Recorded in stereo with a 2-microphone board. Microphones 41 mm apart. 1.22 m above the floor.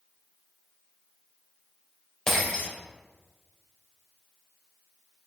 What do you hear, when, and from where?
2.3 s breaking glass: 15° left (ahead or behind), 2.5 m